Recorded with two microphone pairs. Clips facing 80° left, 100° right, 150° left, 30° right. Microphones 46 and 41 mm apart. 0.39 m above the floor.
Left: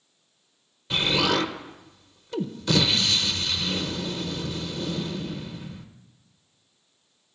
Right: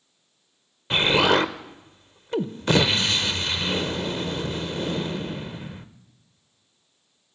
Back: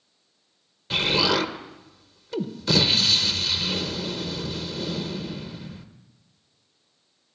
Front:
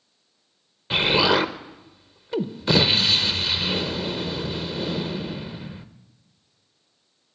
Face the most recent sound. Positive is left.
turn(degrees=-85)